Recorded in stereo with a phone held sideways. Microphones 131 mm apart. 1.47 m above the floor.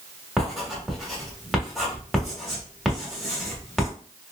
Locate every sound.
0.4 s writing: centre (ahead or behind), 1.3 m